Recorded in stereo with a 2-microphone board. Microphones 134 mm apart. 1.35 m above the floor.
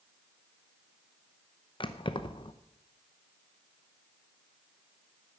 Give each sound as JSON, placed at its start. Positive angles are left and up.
{"t": 1.8, "sound": "keys jangling", "side_deg": 40, "distance_m": 0.7}